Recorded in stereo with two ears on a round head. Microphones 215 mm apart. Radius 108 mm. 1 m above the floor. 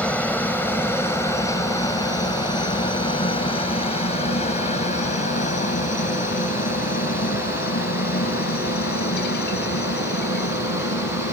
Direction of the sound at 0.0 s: 5° left (ahead or behind).